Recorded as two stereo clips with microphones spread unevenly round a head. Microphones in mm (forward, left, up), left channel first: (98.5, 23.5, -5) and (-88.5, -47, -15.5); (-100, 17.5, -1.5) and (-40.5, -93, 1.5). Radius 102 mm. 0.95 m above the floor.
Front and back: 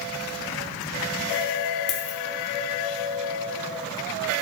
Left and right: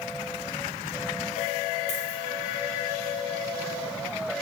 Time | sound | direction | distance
1.9 | a dropped coin | 55° left | 1.3 m